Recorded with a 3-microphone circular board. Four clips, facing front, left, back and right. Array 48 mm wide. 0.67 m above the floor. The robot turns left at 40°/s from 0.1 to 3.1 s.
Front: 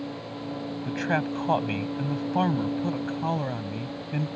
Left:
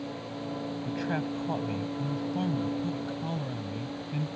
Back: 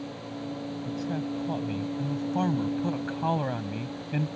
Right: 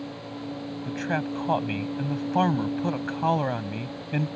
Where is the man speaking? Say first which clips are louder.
Right 4 dB, front 6 dB; 10° right; by 4.3 s 100° right.